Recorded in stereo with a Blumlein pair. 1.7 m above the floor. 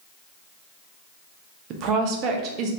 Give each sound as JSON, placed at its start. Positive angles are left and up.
{"t": 1.7, "sound": "a woman speaking", "azimuth_deg": -35, "distance_m": 0.7}